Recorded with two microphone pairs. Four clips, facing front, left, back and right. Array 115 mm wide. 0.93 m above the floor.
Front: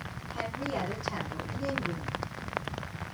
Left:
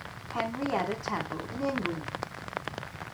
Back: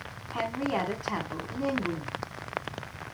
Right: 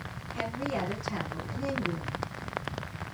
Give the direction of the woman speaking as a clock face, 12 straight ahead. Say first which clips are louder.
Left 3 dB, back 4 dB; 8 o'clock.